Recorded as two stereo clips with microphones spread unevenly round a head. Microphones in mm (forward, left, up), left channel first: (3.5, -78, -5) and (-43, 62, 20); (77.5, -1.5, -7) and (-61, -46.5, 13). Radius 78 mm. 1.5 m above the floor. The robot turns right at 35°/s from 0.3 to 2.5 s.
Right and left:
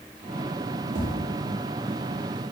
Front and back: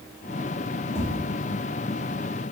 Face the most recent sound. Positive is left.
turn(degrees=125)